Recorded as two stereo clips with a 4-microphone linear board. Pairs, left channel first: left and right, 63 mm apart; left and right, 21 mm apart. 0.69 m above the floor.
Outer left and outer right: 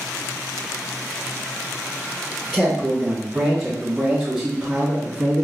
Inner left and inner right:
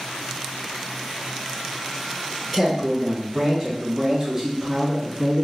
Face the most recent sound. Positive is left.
turn(degrees=-30)  # may be behind; listen again after turning